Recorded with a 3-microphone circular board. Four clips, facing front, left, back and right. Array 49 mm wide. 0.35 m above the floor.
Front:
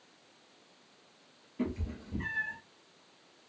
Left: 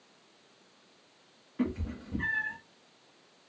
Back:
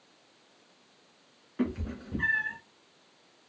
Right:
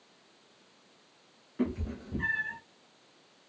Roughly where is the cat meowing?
Behind.